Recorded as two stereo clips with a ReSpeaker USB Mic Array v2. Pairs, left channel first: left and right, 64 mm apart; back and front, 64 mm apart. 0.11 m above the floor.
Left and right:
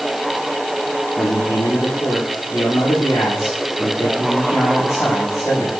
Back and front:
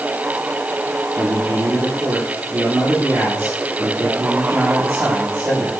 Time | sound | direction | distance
1.2 | a man speaking | 55° left | 6 m